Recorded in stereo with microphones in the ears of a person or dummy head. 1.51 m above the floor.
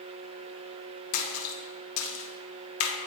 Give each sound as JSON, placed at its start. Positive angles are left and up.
{"t": 1.1, "sound": "a splash", "side_deg": 70, "distance_m": 1.0}